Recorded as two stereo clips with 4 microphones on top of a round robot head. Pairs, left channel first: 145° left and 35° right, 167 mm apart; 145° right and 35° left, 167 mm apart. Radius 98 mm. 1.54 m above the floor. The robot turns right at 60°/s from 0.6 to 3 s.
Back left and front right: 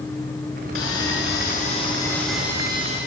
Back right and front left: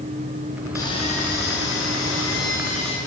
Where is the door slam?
I don't hear a door slam.